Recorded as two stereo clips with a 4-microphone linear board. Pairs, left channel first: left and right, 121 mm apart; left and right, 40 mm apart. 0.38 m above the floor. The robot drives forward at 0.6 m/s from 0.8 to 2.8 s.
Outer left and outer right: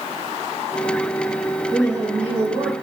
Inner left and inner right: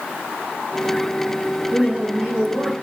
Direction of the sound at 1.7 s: 30° right (ahead or behind).